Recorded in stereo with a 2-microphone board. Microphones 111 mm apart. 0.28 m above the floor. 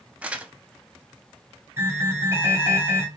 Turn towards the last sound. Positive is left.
turn(degrees=-20)  # may be behind; listen again after turning